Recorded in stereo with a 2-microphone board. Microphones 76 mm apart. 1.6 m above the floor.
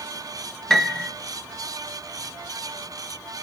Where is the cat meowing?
I don't hear a cat meowing.